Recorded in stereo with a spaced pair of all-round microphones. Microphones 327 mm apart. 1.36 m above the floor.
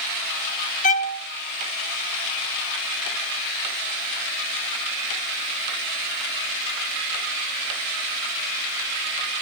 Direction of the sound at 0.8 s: 25° left (ahead or behind).